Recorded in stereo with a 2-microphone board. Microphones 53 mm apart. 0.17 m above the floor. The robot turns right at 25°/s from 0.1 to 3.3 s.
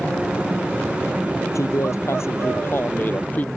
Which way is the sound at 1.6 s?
100° left.